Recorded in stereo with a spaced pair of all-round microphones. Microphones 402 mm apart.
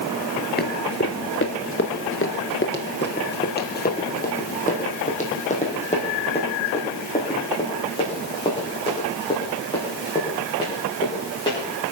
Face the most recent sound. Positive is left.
turn(degrees=10)  # may be behind; listen again after turning